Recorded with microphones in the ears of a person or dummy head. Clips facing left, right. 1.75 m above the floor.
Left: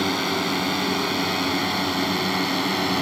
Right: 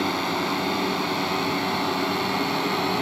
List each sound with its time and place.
0.0 s a drone: 20° left (ahead or behind)